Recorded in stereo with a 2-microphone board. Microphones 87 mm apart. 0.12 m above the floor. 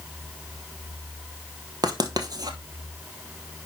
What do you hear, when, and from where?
1.8 s writing: 50° right (ahead or behind), 1.1 m